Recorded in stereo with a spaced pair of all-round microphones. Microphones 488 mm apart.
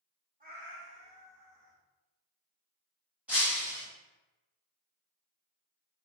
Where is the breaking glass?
5° right (ahead or behind), 1.4 m.